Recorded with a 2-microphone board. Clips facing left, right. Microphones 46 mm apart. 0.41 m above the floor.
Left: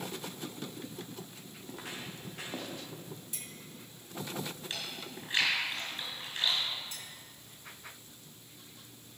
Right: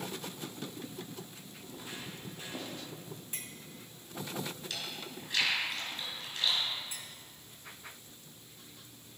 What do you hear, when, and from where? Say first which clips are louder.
1.6 s footsteps: left 2 dB; 80° left, 3.5 m; by 2.8 s 70° left (ahead or behind), 4 m
3.3 s a clink: right 2 dB; 40° right (ahead or behind), 1.6 m
4.7 s chewing: even; 30° left (ahead or behind), 5.5 m
6.9 s a clink: even; 15° right (ahead or behind), 2 m